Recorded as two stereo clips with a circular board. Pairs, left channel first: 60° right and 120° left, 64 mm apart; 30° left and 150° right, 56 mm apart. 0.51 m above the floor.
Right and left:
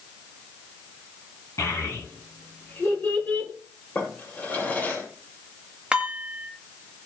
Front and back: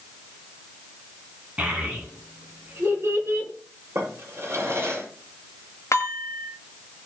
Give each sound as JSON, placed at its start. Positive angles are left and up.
{"t": 1.6, "sound": "a child speaking", "azimuth_deg": -90, "distance_m": 4.0}
{"t": 4.0, "sound": "a drawer", "azimuth_deg": -115, "distance_m": 6.0}
{"t": 5.9, "sound": "dishes clattering", "azimuth_deg": 40, "distance_m": 1.7}